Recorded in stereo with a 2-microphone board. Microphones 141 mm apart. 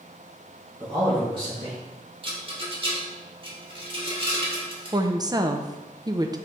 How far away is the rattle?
About 1.5 m.